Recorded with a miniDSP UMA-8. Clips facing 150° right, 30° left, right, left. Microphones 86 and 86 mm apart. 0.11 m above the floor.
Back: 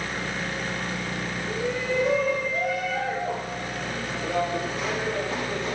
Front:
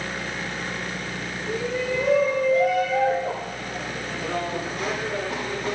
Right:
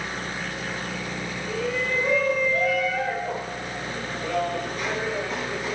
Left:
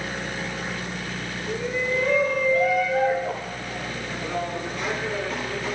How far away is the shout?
About 9 m.